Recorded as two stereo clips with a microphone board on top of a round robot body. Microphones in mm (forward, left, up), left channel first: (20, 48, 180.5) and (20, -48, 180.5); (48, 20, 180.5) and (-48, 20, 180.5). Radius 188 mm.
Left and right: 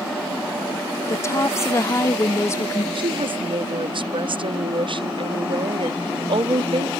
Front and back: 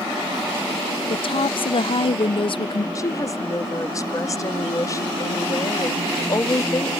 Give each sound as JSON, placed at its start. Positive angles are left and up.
{"t": 1.1, "sound": "a woman speaking", "azimuth_deg": 25}
{"t": 3.0, "sound": "a woman speaking", "azimuth_deg": -60}